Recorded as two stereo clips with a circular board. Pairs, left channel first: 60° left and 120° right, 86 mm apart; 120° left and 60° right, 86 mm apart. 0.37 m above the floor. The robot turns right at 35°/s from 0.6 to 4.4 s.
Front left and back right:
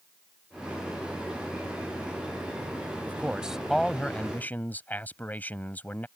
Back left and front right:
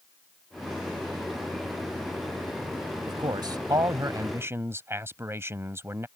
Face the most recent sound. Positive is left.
turn(degrees=-5)